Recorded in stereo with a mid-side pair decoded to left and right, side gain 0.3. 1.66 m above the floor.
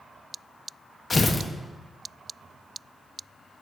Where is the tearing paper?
35° left, 1.2 m.